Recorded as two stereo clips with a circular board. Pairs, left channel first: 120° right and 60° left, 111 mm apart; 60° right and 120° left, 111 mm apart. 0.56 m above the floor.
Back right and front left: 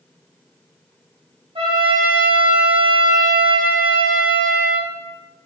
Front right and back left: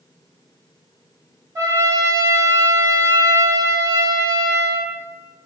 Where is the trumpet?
65° left, 1.0 m.